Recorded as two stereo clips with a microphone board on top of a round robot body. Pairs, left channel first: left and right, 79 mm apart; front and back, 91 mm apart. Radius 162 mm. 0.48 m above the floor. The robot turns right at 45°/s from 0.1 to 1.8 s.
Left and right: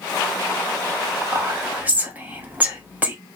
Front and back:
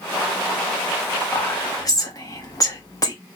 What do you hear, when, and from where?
1.3 s whispering: 50° right, 1.4 m; by 3.1 s 30° right, 1.4 m